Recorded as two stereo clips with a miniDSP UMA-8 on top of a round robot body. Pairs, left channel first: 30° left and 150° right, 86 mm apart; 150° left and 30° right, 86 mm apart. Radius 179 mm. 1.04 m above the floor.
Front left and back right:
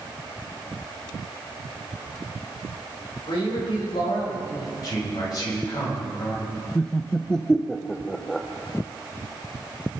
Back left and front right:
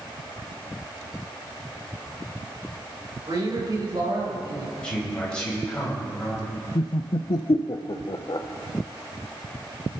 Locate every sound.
3.3 s a man speaking: 10° left, 5 m
4.8 s a man speaking: 70° left, 7 m
6.8 s laughter: 115° left, 0.6 m